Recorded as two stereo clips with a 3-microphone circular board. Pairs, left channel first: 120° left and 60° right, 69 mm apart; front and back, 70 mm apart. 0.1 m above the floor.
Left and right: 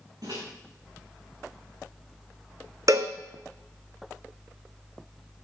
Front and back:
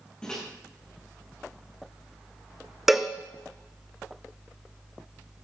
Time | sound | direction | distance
0.2 | a microwave | 80° right | 6 m
2.9 | a cowbell | 95° right | 1.2 m